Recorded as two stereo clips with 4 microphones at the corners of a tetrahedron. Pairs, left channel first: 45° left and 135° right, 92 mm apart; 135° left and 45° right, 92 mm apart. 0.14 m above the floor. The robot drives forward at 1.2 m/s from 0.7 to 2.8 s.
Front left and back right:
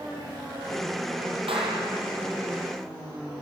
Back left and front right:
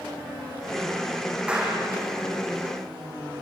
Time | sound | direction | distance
1.5 | a clap | 120° right | 4.5 m